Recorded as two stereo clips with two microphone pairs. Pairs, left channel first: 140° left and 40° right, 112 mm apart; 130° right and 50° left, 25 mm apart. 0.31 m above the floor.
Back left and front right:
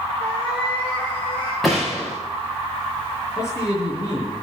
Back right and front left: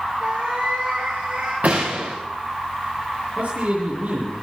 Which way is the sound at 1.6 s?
50° left.